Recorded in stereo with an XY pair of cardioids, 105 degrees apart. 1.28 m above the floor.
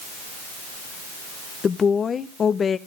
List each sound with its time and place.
1.6 s a woman speaking: 45° left, 0.9 m